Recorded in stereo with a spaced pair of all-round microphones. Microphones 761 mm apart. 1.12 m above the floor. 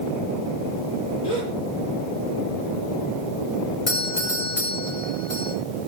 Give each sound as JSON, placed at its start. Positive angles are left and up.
{"t": 1.2, "sound": "a gasp", "side_deg": 30, "distance_m": 7.5}
{"t": 3.9, "sound": "a doorbell", "side_deg": 65, "distance_m": 4.5}